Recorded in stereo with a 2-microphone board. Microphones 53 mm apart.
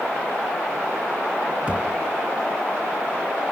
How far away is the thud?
About 1.1 m.